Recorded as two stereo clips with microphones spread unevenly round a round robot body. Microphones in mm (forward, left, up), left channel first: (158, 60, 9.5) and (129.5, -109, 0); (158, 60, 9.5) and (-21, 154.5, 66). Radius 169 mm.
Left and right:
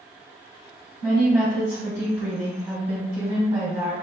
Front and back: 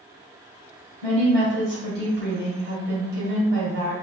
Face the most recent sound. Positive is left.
turn(degrees=-170)